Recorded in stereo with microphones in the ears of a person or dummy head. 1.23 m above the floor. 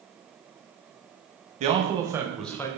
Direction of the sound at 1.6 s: 40° right (ahead or behind).